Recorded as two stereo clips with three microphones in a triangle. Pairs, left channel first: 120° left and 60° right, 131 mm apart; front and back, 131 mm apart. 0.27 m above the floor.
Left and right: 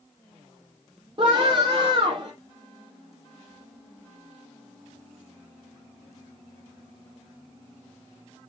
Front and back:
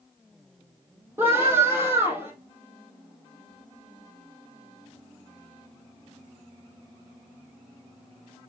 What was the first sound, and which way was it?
A scream, 110° right.